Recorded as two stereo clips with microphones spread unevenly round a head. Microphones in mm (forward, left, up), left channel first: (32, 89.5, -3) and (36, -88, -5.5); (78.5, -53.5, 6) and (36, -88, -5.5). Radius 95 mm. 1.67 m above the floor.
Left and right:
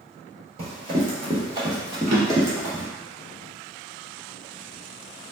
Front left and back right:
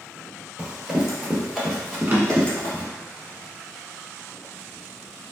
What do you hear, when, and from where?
0.6 s running footsteps: 70° right, 1.9 m; by 2.8 s 10° right, 2.5 m
2.1 s a drawer: 80° right, 1.7 m